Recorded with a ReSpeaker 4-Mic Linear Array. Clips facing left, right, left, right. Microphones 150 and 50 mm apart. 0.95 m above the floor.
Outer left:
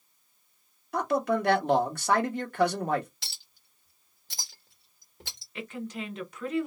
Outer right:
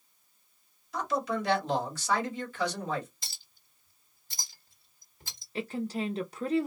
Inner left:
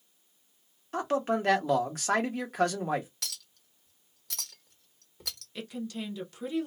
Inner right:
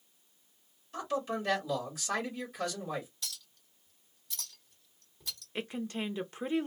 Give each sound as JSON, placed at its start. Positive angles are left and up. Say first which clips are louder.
{"t": 0.9, "sound": "a man speaking", "louder": "outer left 5 dB, inner left 6 dB", "side_deg": 60, "distance_m": 1.2}
{"t": 3.2, "sound": "a clink", "louder": "outer left 1 dB, inner left 3 dB", "side_deg": 80, "distance_m": 1.3}
{"t": 5.5, "sound": "a woman speaking", "louder": "outer right 4 dB, inner right 1 dB", "side_deg": -35, "distance_m": 0.5}